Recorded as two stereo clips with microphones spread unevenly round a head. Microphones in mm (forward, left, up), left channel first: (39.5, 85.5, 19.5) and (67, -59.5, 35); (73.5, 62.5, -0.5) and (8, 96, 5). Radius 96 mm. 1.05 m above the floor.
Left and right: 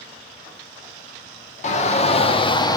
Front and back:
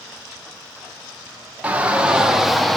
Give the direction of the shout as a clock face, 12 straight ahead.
9 o'clock.